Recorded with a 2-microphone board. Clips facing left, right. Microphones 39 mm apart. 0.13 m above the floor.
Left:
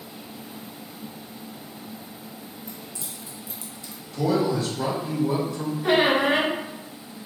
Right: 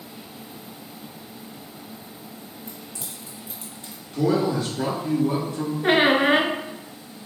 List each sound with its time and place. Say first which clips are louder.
2.7 s keys jangling: even; 55° right (ahead or behind), 2 m; by 4.0 s 35° right (ahead or behind), 1.1 m
4.1 s a man speaking: right 1 dB; 40° right (ahead or behind), 1.7 m
5.8 s a squeak: right 2 dB; 40° right (ahead or behind), 0.6 m